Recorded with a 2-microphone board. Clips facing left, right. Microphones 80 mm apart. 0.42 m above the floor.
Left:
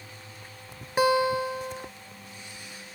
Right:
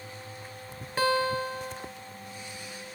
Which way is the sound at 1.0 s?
15° left (ahead or behind).